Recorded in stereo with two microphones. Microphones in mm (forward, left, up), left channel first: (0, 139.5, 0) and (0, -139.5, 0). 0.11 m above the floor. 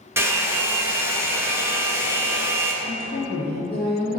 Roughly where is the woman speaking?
Left.